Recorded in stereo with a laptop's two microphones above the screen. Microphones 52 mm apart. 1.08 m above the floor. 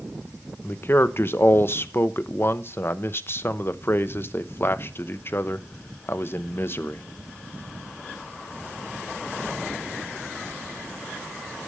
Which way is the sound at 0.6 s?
45° left (ahead or behind).